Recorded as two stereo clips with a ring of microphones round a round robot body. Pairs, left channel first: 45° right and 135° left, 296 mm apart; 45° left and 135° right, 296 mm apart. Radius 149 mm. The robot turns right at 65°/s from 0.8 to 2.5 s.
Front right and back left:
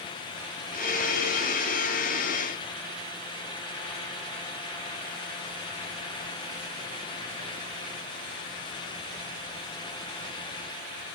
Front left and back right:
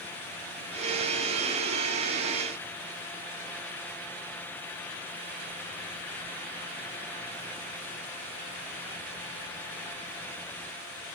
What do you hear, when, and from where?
Only background noise.